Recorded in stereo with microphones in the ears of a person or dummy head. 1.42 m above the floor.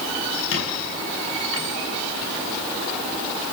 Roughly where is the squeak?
Left.